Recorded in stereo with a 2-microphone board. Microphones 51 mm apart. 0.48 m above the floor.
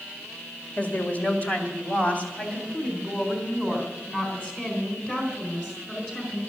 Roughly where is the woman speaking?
Left.